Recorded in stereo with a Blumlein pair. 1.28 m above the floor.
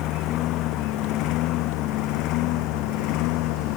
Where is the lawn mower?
35° left; by 3.8 s 40° left.